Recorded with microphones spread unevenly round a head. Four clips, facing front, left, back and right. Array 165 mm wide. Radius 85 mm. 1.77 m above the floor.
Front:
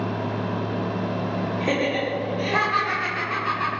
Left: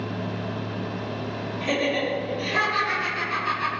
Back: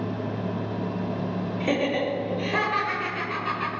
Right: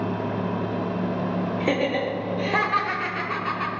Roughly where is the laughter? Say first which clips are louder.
Left 1 dB, even; ahead right.